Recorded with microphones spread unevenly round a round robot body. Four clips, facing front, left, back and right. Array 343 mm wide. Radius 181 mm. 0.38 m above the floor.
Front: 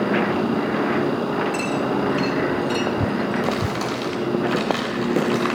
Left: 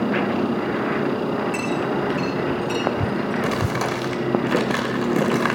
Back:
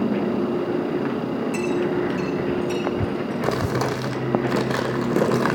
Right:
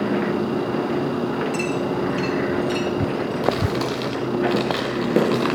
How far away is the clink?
About 5 m.